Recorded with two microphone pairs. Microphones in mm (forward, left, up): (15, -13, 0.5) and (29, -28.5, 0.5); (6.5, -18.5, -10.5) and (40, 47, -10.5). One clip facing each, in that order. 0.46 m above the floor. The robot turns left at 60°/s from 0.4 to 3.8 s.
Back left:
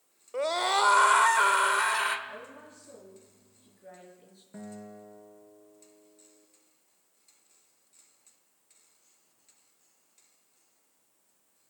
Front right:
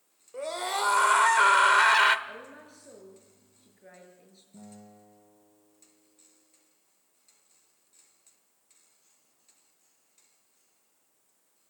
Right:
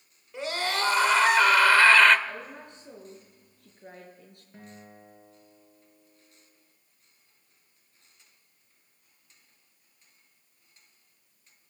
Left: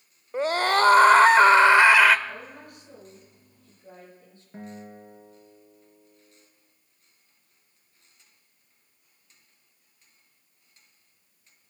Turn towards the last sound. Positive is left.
turn(degrees=130)